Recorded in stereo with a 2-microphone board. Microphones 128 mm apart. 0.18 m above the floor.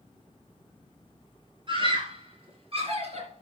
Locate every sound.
1.7 s a scream: 40° right (ahead or behind), 4 m; by 3.4 s 55° right (ahead or behind), 4 m